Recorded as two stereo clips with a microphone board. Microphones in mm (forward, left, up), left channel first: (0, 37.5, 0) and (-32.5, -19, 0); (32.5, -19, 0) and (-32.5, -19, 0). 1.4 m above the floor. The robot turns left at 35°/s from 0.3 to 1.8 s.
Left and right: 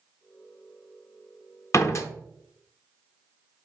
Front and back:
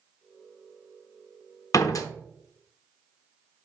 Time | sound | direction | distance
1.7 | a door slam | 25° left | 0.7 m